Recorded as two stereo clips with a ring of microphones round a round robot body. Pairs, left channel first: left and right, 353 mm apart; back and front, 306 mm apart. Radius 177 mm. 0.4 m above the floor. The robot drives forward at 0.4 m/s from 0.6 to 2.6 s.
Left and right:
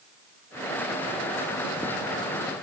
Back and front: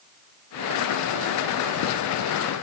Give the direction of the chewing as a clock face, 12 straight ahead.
I don't hear chewing.